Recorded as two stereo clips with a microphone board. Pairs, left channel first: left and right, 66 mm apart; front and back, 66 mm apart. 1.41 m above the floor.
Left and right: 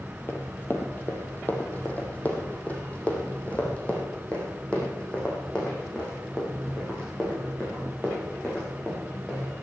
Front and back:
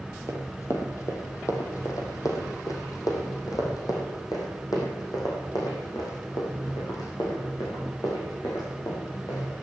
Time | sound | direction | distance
0.3 | running footsteps | 40° left | 2.5 m